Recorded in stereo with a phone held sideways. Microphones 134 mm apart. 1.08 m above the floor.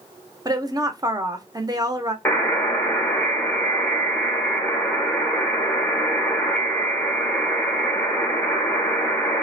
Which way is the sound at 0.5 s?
30° right (ahead or behind).